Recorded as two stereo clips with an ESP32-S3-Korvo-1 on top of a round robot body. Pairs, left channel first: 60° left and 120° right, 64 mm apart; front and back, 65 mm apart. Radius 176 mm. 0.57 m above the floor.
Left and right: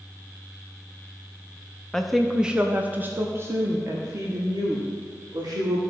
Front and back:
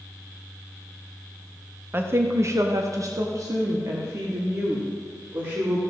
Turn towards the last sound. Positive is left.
turn(degrees=-140)